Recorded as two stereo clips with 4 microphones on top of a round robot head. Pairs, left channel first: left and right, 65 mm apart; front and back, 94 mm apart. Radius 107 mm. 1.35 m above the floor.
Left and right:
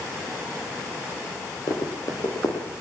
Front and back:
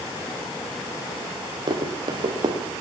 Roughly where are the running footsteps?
Behind left.